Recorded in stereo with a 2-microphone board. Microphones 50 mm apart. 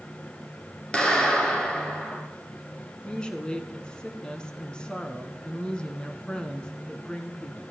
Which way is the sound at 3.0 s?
15° left (ahead or behind).